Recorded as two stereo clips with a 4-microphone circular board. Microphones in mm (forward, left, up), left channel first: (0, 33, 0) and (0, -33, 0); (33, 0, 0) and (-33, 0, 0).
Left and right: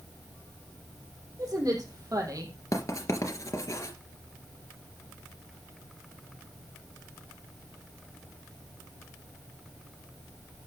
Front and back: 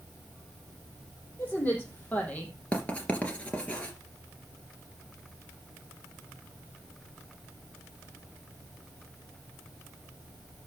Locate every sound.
1.4 s a woman speaking: 60° right, 5.5 m; by 2.5 s 65° right, 4 m
2.7 s writing: 70° left, 2.5 m